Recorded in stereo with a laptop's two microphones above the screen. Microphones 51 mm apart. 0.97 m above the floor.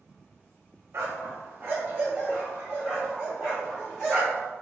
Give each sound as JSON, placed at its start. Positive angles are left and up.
{"t": 0.9, "sound": "a dog barking", "side_deg": -60, "distance_m": 0.5}